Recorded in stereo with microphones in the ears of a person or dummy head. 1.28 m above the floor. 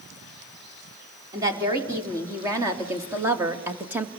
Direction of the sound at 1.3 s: 20° right (ahead or behind).